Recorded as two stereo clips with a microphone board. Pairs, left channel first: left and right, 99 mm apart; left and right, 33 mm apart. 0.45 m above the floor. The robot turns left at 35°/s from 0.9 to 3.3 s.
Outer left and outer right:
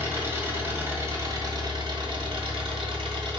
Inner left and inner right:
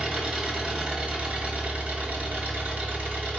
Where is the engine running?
25° right, 1.6 m; by 3.4 s 110° right, 1.6 m.